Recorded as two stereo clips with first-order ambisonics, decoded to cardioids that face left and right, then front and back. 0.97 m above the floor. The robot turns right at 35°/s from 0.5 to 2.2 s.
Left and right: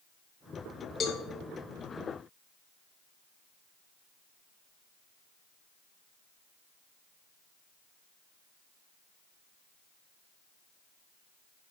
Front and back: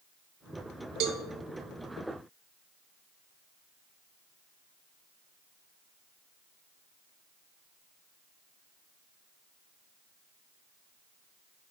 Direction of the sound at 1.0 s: 155° left.